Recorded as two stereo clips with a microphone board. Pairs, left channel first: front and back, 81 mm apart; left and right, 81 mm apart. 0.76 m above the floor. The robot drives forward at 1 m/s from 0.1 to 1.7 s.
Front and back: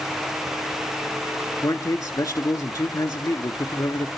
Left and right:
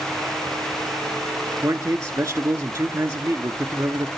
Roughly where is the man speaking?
Ahead right.